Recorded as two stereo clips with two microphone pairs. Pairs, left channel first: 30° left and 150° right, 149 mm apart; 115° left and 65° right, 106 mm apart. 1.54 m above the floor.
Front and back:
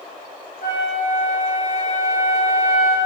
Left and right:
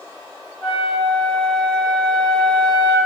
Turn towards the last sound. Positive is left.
turn(degrees=20)